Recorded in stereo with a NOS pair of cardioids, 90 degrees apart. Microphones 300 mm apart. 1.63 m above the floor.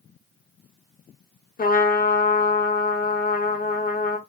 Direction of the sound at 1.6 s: 30° left.